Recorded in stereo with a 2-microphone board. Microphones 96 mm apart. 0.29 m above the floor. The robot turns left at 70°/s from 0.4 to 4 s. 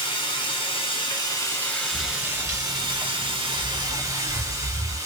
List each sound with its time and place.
0.0 s running water: 110° left, 1.8 m; by 5.1 s 145° right, 1.8 m
1.9 s footsteps: 60° left (ahead or behind), 1.8 m; by 5.0 s 5° right (ahead or behind), 1.1 m